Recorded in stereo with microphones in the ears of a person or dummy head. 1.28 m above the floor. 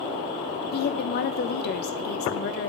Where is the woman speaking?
45° left (ahead or behind), 0.7 m.